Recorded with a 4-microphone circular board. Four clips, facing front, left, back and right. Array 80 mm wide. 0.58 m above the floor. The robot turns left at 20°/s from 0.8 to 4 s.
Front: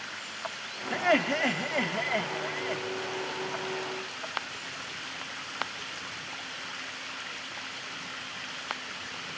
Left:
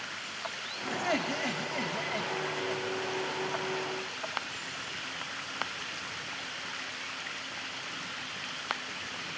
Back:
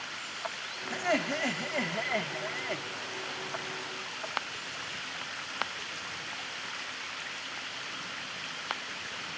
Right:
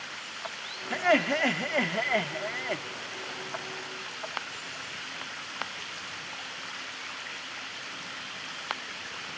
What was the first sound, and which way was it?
Laughter, 55° right.